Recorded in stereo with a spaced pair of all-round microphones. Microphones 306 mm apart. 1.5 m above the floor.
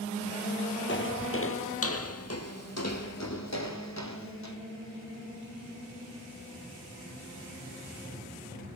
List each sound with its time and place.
0.9 s footsteps: 40° left (ahead or behind), 1.9 m; by 4.5 s 65° left (ahead or behind), 3.5 m